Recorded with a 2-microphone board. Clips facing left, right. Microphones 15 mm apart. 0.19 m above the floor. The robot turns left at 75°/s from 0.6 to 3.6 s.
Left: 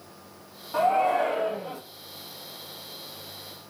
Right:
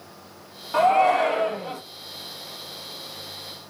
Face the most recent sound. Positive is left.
turn(degrees=80)